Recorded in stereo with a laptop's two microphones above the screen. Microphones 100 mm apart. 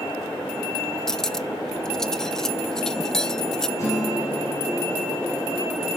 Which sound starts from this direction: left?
A guitar, at 3.8 s.